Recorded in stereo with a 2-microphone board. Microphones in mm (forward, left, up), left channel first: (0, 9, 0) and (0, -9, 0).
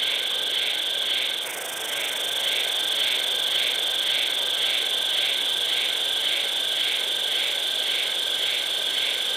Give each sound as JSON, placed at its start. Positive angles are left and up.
{"t": 0.0, "sound": "an insect", "side_deg": 5, "distance_m": 0.8}